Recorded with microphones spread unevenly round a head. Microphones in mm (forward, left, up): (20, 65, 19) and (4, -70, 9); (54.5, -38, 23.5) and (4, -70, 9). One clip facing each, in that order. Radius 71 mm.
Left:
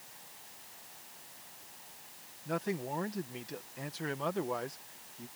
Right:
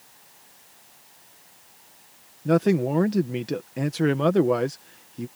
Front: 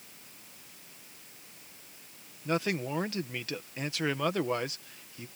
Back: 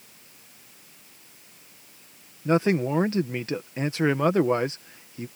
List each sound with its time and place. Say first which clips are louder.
2.5 s a man speaking: right 15 dB, back 9 dB; 95° right